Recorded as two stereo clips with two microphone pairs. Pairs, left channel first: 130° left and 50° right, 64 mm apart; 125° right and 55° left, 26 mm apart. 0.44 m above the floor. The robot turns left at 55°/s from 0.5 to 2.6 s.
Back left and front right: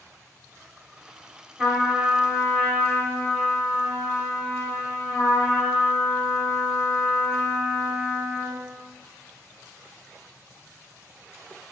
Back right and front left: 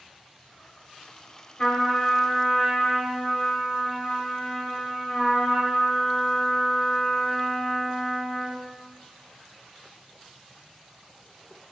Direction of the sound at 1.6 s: 100° right.